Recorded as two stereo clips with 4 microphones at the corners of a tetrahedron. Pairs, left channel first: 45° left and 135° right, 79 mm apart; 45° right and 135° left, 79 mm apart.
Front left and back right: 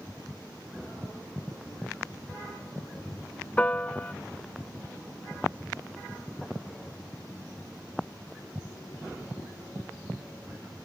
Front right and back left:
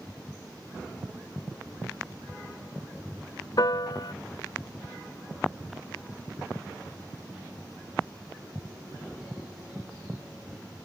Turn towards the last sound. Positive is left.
turn(degrees=-25)